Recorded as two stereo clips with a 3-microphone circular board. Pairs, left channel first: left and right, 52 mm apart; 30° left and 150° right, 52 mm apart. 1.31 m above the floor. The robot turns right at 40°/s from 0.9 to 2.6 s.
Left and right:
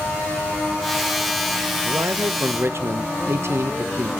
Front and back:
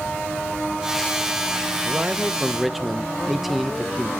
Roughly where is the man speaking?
Right.